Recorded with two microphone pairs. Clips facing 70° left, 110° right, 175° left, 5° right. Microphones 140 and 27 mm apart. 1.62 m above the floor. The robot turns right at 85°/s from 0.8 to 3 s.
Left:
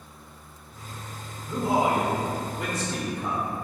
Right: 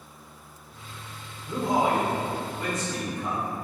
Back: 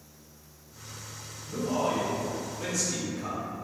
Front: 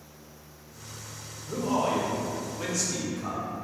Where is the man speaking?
30° right, 1.0 m; by 3.5 s 100° left, 1.0 m.